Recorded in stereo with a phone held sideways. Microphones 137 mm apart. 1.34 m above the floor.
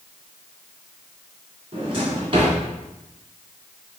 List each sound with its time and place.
1.7 s a drawer: 45° right (ahead or behind), 3 m